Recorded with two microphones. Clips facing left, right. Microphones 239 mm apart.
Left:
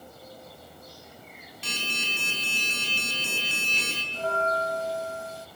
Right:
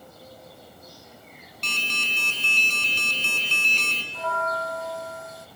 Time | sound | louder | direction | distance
1.6 | an alarm | left 1 dB | 5° left (ahead or behind) | 4.5 m
4.1 | a bell | left 2 dB | 30° left (ahead or behind) | 0.8 m